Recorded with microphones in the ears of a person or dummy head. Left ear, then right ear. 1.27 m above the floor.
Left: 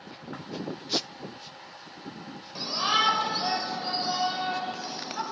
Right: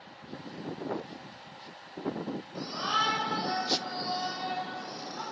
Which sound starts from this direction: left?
A shout, at 2.5 s.